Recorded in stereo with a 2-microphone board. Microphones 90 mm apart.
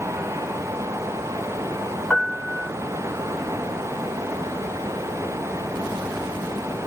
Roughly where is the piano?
Centre.